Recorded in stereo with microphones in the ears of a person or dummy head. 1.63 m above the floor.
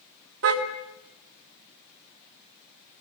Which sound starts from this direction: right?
A car horn, at 0.4 s.